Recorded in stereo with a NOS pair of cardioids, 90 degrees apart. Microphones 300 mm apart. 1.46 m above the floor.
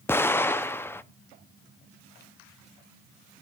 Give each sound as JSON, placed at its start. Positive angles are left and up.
{"t": 0.1, "sound": "an explosion", "azimuth_deg": 10, "distance_m": 0.8}